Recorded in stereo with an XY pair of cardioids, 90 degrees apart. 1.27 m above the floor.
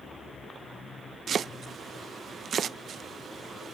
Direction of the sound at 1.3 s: 55° right.